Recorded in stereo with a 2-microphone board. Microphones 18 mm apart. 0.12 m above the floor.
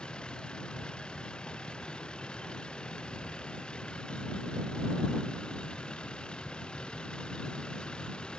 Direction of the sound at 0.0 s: 75° left (ahead or behind).